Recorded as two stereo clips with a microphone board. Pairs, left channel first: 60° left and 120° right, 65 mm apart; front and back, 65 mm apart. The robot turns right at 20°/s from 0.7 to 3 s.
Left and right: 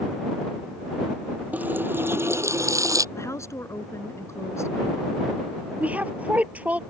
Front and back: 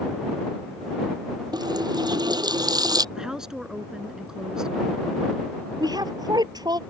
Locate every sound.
1.5 s a running tap: 170° left; by 3.0 s 160° right
3.1 s a woman speaking: 100° left
5.8 s a woman speaking: 170° left